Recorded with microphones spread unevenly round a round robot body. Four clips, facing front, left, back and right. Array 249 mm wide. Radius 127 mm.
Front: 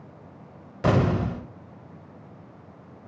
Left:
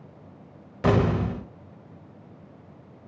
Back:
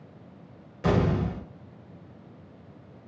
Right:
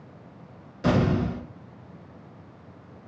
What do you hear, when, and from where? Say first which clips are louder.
0.8 s an explosion: left 1 dB, front 2 dB; 25° left, 0.7 m